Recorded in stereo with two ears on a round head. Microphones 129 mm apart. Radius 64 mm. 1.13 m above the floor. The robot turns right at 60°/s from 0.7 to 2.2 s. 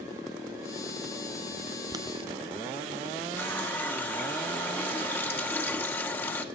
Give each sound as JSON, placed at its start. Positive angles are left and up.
{"t": 1.9, "sound": "boiling", "side_deg": -25, "distance_m": 0.7}
{"t": 3.4, "sound": "a running tap", "side_deg": 15, "distance_m": 1.6}